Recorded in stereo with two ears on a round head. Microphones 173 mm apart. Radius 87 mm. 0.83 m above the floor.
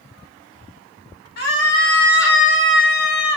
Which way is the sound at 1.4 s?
50° left (ahead or behind).